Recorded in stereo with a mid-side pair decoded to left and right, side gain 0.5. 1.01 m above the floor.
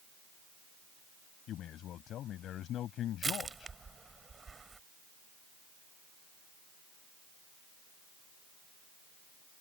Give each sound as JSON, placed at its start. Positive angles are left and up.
{"t": 1.5, "sound": "a man speaking", "azimuth_deg": 65}
{"t": 3.2, "sound": "crushing", "azimuth_deg": -30}